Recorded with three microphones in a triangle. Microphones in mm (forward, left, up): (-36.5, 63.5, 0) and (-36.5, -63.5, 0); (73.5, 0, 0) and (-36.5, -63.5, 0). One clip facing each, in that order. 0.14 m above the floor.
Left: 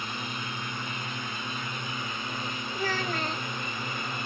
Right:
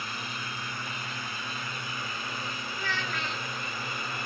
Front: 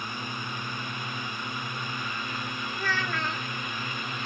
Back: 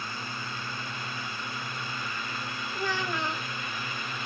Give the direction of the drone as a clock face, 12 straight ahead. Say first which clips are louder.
Left 2 dB, front 2 dB; 10 o'clock.